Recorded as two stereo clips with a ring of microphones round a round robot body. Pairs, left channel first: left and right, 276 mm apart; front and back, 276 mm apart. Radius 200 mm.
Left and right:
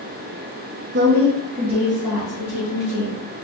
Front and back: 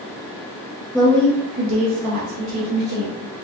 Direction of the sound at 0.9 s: 85° right.